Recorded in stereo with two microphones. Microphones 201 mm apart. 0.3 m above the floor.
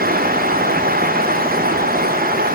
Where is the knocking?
I don't hear knocking.